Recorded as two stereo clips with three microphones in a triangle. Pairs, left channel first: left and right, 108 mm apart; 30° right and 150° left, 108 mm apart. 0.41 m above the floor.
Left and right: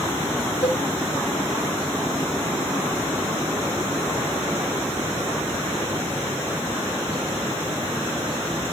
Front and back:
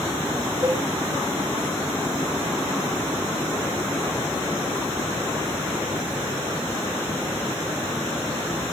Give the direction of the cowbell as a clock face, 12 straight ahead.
9 o'clock.